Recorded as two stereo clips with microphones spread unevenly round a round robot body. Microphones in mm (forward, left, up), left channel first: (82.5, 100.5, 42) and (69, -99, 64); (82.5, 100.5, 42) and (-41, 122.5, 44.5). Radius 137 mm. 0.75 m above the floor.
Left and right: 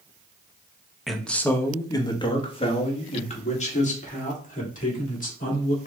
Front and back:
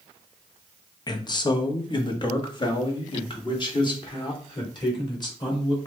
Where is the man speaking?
5° left, 0.9 m; by 5.9 s 40° left, 3 m.